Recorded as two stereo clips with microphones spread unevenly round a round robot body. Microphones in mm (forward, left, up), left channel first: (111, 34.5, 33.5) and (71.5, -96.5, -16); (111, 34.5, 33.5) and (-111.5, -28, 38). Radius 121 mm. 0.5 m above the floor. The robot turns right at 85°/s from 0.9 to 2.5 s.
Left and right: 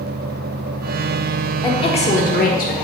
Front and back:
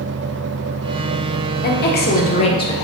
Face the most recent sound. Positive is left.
turn(degrees=75)